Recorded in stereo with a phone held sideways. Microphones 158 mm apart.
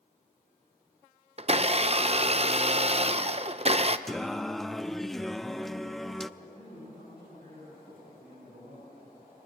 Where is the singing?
Centre (ahead or behind), 0.5 m.